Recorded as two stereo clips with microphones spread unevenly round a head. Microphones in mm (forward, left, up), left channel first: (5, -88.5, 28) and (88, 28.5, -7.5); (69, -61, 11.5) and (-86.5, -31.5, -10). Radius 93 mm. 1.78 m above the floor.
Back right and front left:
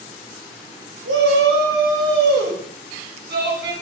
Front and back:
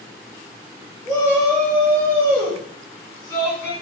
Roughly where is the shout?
Ahead left.